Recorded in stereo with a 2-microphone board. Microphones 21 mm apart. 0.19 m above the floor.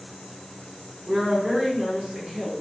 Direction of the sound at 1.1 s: 15° right (ahead or behind).